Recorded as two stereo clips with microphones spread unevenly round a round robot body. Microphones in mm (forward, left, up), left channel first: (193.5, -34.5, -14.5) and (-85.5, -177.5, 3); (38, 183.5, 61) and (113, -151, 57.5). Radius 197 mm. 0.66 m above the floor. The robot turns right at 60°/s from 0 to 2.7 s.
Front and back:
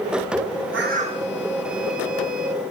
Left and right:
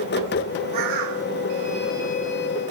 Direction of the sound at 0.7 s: 105° right.